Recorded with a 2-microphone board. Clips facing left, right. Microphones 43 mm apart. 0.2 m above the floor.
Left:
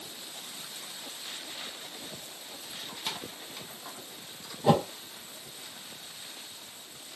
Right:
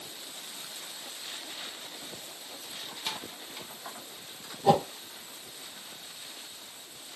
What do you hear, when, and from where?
2.6 s keys jangling: 20° left (ahead or behind), 0.7 m; by 4.5 s 20° right (ahead or behind), 1.6 m
4.6 s a whoosh: 15° left (ahead or behind), 0.6 m